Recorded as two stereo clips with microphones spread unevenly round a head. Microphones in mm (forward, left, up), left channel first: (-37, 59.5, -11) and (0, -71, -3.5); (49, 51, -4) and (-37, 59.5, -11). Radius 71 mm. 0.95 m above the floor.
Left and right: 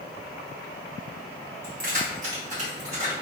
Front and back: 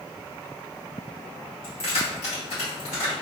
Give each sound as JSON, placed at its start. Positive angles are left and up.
{"t": 1.6, "sound": "keys jangling", "azimuth_deg": -40, "distance_m": 1.1}